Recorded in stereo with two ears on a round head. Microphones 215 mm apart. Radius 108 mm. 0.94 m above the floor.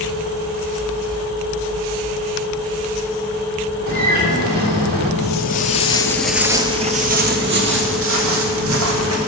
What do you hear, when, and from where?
3.9 s a bird: 40° right (ahead or behind), 1.8 m
5.2 s footsteps: 50° left (ahead or behind), 1.3 m; by 9.2 s 65° right (ahead or behind), 3 m